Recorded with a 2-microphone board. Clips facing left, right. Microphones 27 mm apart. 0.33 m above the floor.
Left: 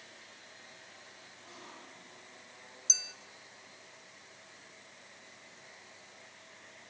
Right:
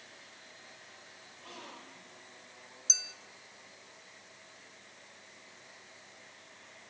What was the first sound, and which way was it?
A gasp, 60° right (ahead or behind).